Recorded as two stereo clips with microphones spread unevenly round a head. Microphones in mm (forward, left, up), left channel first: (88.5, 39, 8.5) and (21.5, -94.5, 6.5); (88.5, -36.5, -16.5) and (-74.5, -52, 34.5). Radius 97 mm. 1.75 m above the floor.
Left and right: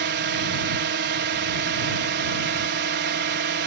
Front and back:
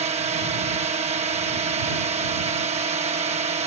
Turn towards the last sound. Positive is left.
turn(degrees=-120)